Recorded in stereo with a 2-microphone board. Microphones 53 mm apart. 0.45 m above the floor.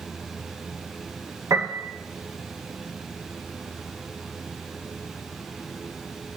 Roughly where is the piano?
Right.